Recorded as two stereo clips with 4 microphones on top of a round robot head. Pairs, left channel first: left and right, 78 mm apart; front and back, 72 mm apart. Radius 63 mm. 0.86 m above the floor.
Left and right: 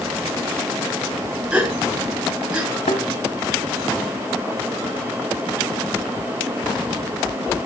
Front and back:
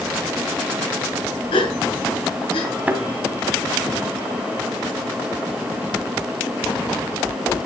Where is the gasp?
15° right, 7.5 m.